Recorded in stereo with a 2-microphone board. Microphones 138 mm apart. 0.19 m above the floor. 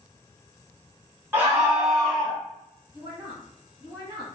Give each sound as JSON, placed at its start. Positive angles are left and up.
{"t": 1.3, "sound": "a scream", "side_deg": -20, "distance_m": 1.1}
{"t": 2.9, "sound": "a woman speaking", "side_deg": -10, "distance_m": 1.3}